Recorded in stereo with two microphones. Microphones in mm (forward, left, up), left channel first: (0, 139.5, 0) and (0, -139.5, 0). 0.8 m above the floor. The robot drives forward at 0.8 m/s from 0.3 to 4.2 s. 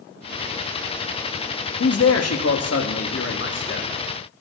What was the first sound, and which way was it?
A man speaking, 55° left (ahead or behind).